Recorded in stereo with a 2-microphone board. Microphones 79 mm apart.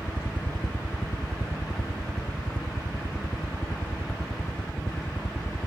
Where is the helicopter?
25° left (ahead or behind).